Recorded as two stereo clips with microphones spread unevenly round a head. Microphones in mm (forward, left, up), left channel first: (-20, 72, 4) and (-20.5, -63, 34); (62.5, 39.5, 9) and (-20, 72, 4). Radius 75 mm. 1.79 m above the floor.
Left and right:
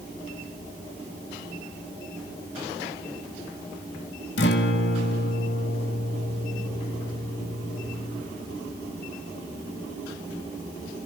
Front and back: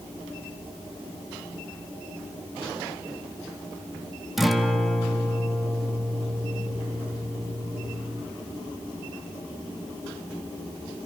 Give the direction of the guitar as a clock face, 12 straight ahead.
10 o'clock.